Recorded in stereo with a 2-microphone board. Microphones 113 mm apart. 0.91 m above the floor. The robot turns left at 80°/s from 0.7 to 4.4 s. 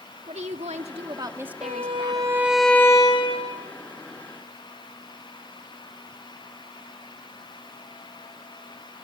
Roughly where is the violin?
Right.